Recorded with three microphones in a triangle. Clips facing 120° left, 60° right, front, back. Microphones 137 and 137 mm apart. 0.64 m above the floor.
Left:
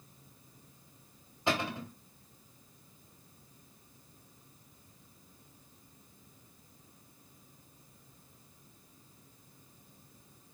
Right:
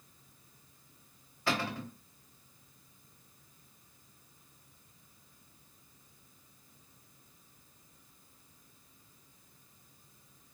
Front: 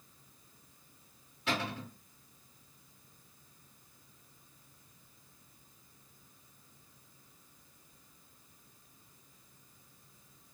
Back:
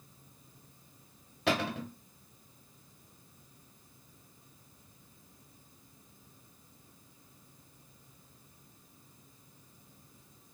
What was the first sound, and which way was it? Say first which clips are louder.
A cupboard door: left 1 dB, back 5 dB; 170° right.